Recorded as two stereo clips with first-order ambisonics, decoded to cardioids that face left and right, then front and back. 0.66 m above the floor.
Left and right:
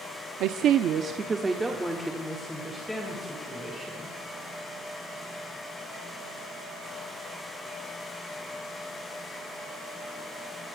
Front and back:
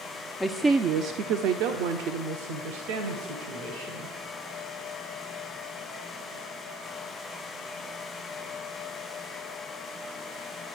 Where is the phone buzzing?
I don't hear a phone buzzing.